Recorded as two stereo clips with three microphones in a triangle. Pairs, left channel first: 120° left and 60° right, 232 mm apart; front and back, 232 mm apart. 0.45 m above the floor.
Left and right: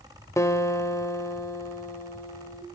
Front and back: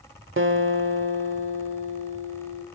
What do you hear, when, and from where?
0.4 s a guitar: 165° right, 0.9 m